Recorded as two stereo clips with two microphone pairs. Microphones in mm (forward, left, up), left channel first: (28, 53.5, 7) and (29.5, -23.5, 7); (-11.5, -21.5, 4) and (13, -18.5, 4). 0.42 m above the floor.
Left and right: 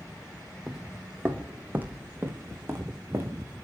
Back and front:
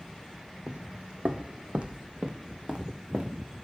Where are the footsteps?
Straight ahead, 0.8 m; by 3.5 s 35° right, 2 m.